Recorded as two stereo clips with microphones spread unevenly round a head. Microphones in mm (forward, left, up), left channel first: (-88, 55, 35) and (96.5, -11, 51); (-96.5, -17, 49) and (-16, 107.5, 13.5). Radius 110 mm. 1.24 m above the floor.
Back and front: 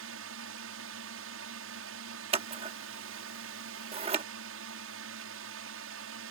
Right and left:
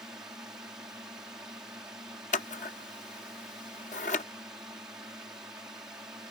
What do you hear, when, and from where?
0.0 s a drone: 20° right
2.3 s scissors: 80° right